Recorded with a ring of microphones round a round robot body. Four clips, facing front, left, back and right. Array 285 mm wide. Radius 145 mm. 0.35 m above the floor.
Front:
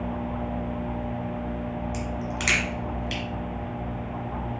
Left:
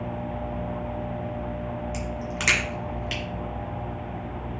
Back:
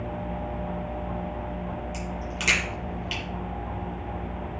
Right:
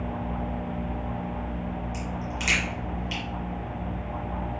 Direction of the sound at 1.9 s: 80° left.